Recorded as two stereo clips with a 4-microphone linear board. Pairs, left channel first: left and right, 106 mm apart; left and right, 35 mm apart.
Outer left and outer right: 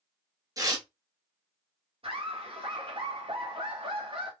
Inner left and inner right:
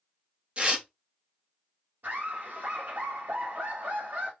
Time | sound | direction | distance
0.6 | tearing paper | 35° right (ahead or behind) | 1.0 m
2.0 | laughter | 60° right (ahead or behind) | 1.0 m